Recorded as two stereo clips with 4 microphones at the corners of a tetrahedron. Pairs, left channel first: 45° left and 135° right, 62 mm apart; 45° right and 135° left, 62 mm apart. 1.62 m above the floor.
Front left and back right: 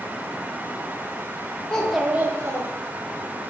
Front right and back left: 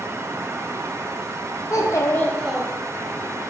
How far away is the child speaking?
About 0.7 m.